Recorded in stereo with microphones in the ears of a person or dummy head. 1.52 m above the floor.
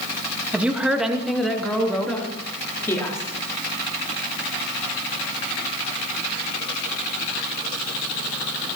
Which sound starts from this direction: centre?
A woman speaking, at 0.5 s.